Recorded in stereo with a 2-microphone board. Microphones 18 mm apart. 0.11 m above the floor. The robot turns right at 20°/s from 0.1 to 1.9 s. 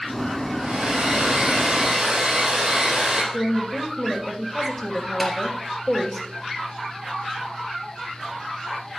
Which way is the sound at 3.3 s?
20° left (ahead or behind).